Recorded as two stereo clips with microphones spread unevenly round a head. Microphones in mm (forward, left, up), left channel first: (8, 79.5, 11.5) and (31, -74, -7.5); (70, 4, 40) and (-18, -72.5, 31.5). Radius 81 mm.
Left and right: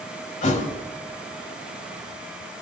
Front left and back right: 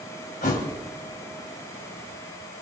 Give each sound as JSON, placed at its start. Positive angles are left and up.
{"t": 0.4, "sound": "a thud", "azimuth_deg": 70, "distance_m": 2.5}